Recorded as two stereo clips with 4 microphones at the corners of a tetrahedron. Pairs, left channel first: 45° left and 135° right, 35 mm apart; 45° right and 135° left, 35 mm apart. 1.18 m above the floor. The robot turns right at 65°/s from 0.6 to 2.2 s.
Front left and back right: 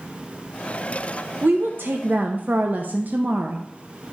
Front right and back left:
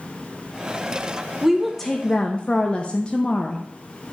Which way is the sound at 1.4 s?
150° right.